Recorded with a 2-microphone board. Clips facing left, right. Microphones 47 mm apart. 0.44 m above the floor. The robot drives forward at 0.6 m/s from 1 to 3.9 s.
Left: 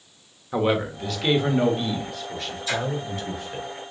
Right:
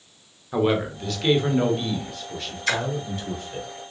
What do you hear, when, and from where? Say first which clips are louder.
0.5 s a man speaking: right 1 dB; 5° left (ahead or behind), 1.0 m
2.7 s a splash: right 3 dB; 70° right (ahead or behind), 1.0 m; by 2.9 s 75° right (ahead or behind), 0.9 m